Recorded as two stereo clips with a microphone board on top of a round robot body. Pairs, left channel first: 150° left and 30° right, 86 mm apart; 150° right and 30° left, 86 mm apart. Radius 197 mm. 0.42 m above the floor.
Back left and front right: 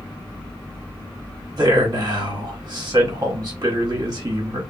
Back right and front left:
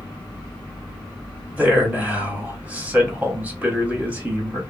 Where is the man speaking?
40° right, 1.1 m.